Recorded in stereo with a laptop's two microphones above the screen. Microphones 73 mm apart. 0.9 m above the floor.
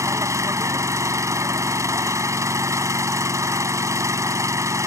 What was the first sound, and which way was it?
An engine running, 45° right (ahead or behind).